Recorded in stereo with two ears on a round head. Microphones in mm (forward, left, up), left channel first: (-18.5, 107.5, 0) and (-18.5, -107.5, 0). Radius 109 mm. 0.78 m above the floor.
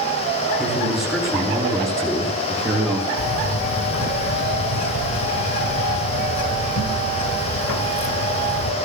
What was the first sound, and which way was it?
A man speaking, 5° right (ahead or behind).